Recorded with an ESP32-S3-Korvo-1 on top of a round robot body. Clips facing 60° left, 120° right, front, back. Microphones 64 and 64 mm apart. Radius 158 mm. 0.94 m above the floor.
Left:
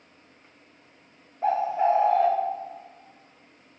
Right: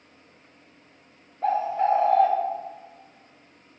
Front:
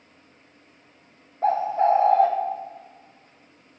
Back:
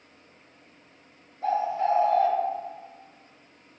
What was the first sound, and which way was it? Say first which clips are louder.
A bird: even, front 5 dB; 20° right.